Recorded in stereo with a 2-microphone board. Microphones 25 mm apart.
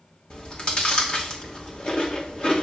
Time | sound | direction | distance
0.3 | chewing | 40° left (ahead or behind) | 2.5 m